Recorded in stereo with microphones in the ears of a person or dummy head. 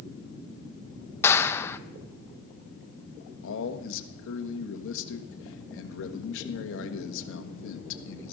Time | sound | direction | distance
1.2 | a clap | 10° left (ahead or behind) | 0.5 m
3.4 | a man speaking | 70° left (ahead or behind) | 1.5 m